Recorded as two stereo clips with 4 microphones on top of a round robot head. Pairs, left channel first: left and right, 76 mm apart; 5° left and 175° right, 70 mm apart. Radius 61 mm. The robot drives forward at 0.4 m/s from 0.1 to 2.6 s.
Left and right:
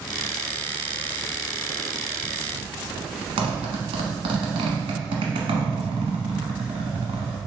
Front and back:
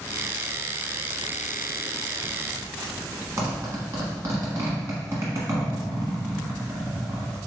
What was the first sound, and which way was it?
A zipper, 115° right.